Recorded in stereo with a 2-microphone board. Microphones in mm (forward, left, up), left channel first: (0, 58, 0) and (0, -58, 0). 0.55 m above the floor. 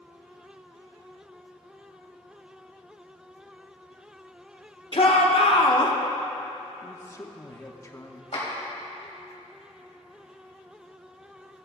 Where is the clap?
65° left (ahead or behind), 3 m.